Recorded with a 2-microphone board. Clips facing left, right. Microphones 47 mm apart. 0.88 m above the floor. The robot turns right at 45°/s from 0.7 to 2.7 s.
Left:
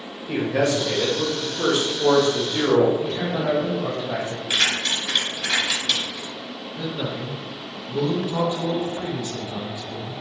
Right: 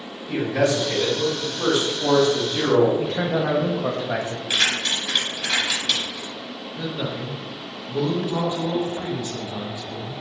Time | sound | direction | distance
0.3 | a man speaking | 65° left | 1.3 m
3.0 | a man speaking | 70° right (ahead or behind) | 0.7 m
4.5 | keys jangling | 10° right (ahead or behind) | 1.8 m
6.8 | a man speaking | 20° right (ahead or behind) | 0.9 m